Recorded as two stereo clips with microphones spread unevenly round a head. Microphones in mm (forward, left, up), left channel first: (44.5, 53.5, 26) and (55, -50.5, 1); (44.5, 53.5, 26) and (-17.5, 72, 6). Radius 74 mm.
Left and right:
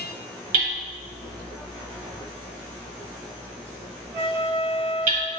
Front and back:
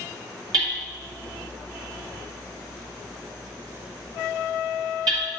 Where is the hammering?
130° right, 1.5 m.